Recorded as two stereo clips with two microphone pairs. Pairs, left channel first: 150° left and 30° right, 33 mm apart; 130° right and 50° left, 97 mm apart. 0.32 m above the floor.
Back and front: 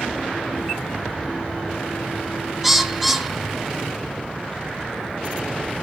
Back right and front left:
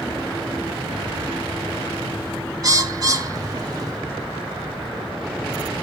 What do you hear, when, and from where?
2.6 s a bird: 55° left, 0.7 m